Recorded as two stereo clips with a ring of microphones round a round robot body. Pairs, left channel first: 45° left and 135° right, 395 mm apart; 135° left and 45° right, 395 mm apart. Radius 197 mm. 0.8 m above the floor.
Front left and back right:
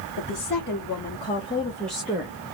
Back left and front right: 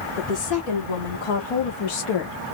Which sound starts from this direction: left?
A woman speaking, at 0.2 s.